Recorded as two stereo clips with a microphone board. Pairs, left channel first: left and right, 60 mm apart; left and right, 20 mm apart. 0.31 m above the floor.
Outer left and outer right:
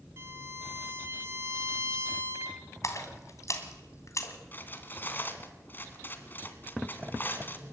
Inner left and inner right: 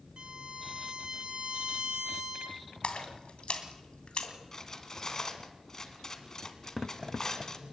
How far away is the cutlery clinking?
About 2.0 m.